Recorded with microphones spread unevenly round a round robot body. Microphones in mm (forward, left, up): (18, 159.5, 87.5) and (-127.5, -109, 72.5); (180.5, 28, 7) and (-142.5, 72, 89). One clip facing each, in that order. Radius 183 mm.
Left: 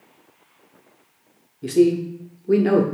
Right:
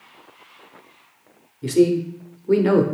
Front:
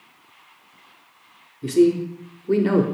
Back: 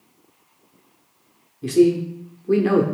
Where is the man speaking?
55° right, 0.8 m.